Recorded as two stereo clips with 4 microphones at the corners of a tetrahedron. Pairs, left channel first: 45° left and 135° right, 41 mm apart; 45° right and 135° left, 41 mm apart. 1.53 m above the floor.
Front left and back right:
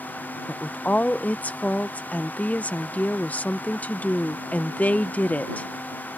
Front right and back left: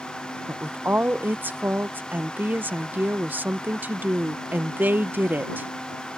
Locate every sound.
0.5 s a woman speaking: 95° left